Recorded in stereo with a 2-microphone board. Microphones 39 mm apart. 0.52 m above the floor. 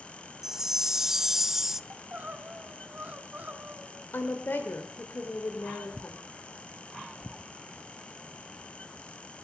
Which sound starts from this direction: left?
A woman speaking, at 4.1 s.